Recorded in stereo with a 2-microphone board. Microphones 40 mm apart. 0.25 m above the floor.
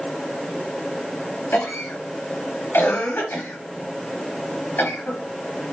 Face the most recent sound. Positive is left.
turn(degrees=60)  # may be behind; listen again after turning